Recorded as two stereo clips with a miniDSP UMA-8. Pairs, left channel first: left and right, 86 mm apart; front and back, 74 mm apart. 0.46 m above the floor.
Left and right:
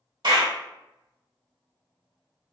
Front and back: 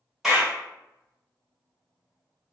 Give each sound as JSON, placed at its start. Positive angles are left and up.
{"t": 0.2, "sound": "a clap", "azimuth_deg": -95, "distance_m": 1.9}